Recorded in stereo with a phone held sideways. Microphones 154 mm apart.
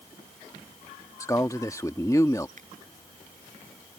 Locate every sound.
1.2 s a man speaking: 20° left (ahead or behind)
2.6 s a finger snap: 55° right (ahead or behind)